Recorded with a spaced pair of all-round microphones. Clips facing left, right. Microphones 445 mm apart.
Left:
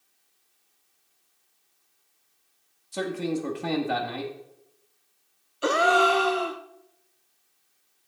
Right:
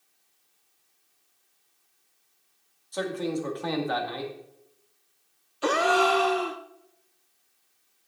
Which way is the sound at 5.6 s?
5° right (ahead or behind).